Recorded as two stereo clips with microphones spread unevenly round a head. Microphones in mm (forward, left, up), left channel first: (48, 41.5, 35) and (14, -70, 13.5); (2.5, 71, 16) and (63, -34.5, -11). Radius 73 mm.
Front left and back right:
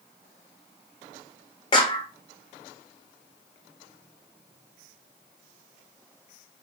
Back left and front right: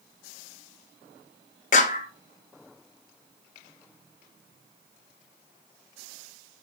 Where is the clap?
130° left, 1.0 m.